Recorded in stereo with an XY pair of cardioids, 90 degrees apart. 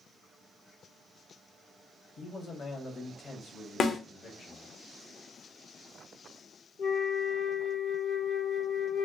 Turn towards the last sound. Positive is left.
turn(degrees=70)